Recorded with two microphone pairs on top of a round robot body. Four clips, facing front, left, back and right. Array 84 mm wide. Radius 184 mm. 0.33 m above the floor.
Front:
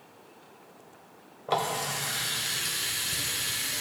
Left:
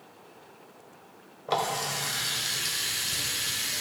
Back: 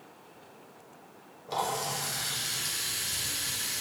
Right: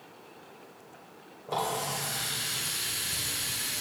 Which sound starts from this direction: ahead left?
A running tap, at 1.5 s.